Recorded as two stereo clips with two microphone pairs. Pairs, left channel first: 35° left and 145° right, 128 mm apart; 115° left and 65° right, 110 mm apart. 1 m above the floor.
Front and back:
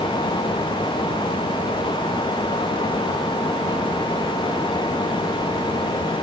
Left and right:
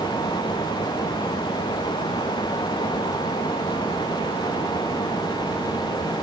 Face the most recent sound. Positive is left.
No sound to turn to.